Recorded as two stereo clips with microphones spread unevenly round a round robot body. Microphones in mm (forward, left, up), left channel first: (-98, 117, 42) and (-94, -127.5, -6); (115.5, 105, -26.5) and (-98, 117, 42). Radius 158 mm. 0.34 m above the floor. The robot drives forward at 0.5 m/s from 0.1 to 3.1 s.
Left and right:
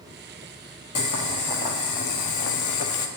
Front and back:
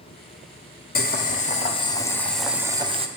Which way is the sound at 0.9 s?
40° left.